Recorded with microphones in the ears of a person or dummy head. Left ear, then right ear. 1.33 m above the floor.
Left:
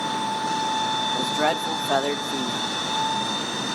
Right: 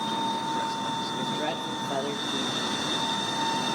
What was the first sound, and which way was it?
A man speaking, 50° left (ahead or behind).